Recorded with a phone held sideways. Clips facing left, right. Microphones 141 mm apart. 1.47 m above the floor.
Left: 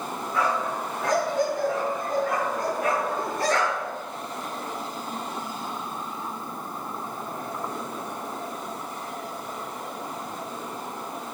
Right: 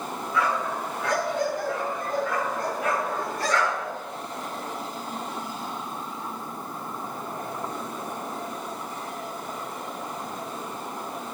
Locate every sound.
0.3 s a dog barking: 40° left (ahead or behind), 8 m; by 3.9 s 45° left (ahead or behind), 10 m